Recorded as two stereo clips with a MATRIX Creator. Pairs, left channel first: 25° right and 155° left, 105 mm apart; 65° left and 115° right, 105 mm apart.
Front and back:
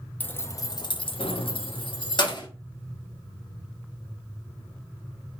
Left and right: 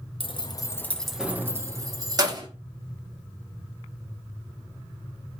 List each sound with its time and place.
0.2 s keys jangling: 50° left, 0.6 m; by 2.5 s 65° right, 1.2 m